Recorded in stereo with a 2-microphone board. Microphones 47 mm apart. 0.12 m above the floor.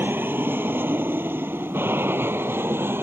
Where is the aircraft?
50° right (ahead or behind); by 3.0 s 55° right (ahead or behind).